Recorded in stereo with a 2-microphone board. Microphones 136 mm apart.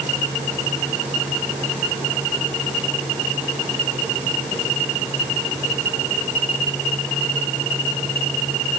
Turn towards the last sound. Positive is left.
No sound to turn to.